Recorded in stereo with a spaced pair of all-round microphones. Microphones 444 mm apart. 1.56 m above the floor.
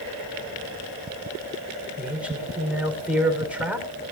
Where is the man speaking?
5° right (ahead or behind), 5.5 m.